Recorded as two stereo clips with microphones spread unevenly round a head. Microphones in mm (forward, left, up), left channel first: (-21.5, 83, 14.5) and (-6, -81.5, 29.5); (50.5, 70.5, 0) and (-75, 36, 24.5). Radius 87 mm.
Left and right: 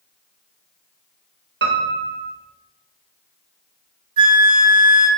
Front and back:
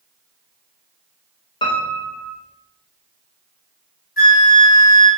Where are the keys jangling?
I don't hear keys jangling.